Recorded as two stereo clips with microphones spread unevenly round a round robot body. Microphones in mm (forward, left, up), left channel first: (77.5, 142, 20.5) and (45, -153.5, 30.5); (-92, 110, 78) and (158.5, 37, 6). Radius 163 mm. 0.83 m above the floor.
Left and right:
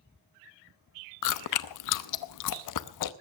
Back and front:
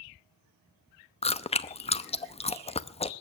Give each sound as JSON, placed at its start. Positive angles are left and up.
{"t": 1.2, "sound": "chewing", "azimuth_deg": 90, "distance_m": 0.9}